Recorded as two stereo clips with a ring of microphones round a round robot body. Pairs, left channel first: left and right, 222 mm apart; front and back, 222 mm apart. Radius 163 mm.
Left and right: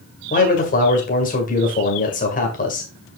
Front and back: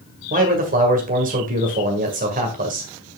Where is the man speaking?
135° left, 2.0 m.